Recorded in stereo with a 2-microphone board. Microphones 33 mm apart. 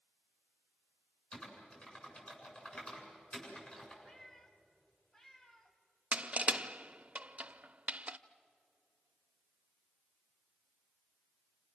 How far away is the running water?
No running water in this recording.